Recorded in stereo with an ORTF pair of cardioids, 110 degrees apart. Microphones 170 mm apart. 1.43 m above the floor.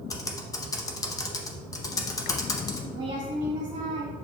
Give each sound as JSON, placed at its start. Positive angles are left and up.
{"t": 0.1, "sound": "typing on a keyboard", "azimuth_deg": 20, "distance_m": 0.6}
{"t": 2.9, "sound": "a woman speaking", "azimuth_deg": -30, "distance_m": 1.9}